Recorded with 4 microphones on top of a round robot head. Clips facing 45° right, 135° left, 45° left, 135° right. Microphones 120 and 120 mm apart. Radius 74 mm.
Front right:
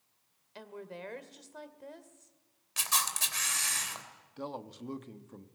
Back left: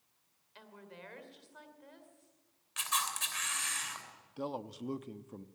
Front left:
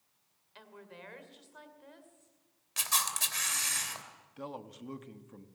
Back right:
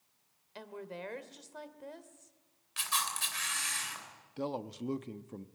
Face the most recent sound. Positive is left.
turn(degrees=-150)